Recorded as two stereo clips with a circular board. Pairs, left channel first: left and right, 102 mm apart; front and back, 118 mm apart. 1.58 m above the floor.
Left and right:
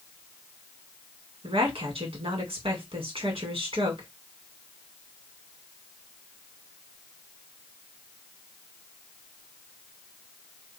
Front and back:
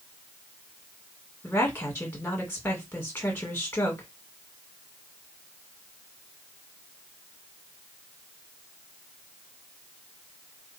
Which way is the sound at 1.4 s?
75° right.